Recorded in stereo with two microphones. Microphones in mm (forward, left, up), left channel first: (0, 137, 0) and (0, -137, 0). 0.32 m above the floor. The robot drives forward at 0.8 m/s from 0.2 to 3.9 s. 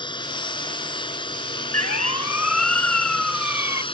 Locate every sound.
0.0 s a drone: 15° left (ahead or behind); by 3.9 s 20° left (ahead or behind)
1.7 s a siren: 60° left (ahead or behind); by 3.8 s 75° left (ahead or behind)